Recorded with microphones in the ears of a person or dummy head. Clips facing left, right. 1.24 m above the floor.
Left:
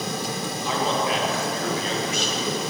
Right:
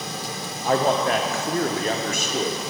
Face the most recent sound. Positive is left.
turn(degrees=-35)  # may be behind; listen again after turning